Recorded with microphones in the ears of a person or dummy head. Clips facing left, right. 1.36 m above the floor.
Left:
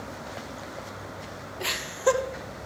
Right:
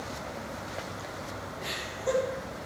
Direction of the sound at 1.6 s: 85° left.